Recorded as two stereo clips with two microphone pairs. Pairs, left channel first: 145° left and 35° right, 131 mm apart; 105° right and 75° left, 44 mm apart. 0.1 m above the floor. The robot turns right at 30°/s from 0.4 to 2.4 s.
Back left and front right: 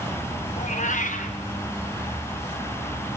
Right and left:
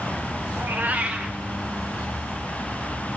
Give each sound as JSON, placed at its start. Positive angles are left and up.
{"t": 0.6, "sound": "a cat meowing", "azimuth_deg": 120, "distance_m": 3.0}